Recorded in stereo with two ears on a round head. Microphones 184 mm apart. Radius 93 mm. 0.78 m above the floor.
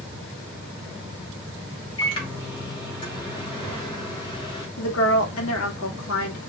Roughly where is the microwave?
Left.